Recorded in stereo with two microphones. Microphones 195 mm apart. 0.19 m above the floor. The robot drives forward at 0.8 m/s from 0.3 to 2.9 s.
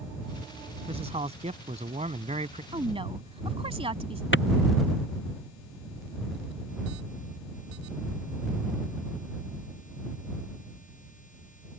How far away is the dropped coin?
No dropped coin in this recording.